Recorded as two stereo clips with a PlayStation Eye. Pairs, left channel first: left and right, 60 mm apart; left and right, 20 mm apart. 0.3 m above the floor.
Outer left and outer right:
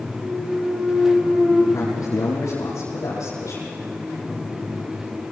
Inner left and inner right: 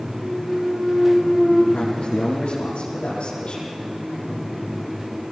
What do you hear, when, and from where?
0.2 s a clunk: 15° right (ahead or behind), 5 m
1.7 s a man speaking: 70° left (ahead or behind), 8.5 m